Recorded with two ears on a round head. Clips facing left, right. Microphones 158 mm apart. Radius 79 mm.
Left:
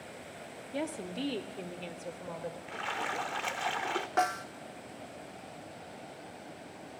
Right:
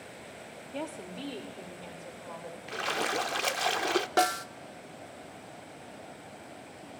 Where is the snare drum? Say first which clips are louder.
Right 1 dB; 40° right (ahead or behind), 0.5 m.